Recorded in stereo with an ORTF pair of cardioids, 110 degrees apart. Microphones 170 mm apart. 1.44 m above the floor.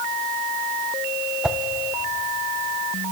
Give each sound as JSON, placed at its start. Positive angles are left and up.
{"t": 1.4, "sound": "a whoosh", "azimuth_deg": -5, "distance_m": 1.0}